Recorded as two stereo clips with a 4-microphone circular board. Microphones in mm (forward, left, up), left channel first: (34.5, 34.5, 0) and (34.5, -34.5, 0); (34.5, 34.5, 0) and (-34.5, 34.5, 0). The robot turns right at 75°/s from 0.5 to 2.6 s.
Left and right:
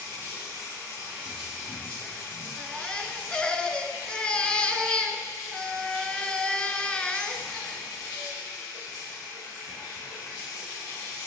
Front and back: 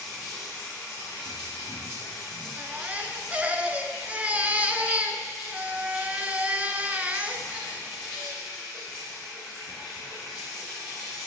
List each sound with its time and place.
0.0 s running water: 80° right, 5.5 m; by 11.3 s 80° left, 5.5 m
2.6 s a baby crying: 140° left, 0.7 m; by 8.4 s 145° left, 0.7 m